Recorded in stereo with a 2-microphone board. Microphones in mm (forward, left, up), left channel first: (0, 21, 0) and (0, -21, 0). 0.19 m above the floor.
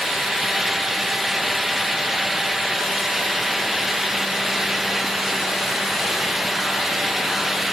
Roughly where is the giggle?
No giggle in this recording.